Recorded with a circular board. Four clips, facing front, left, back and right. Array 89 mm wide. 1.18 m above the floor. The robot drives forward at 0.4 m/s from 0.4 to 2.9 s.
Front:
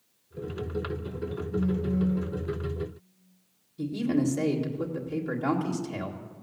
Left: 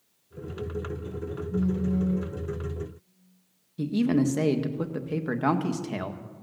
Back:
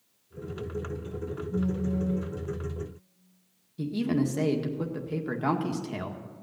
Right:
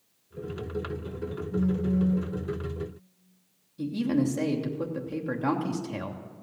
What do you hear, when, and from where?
1.5 s a phone buzzing: 130° left, 7 m
3.8 s a man speaking: 105° left, 1.8 m